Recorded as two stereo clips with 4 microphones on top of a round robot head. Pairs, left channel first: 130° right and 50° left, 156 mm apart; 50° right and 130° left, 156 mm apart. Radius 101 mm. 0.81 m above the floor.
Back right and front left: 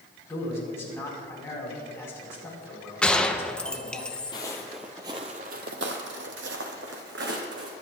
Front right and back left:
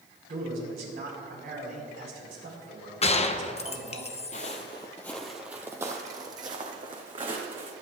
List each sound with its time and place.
0.3 s a man speaking: 160° left, 5.5 m
3.0 s a gunshot: 45° right, 0.9 m
4.3 s footsteps: 75° right, 0.9 m; by 7.7 s 70° left, 2.5 m